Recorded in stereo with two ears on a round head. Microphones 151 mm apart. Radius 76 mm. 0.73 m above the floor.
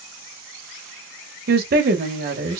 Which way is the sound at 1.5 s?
60° right (ahead or behind).